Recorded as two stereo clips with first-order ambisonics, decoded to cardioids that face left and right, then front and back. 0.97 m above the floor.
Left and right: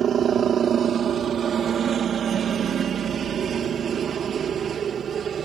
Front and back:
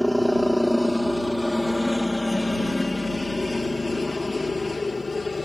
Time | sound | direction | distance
0.0 | a helicopter | 90° right | ?